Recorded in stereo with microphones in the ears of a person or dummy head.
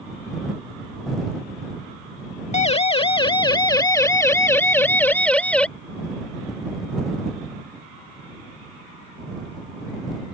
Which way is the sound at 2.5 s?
30° left (ahead or behind).